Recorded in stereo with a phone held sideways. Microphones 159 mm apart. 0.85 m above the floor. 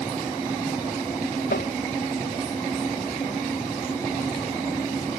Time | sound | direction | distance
1.5 | tapping | 85° left | ?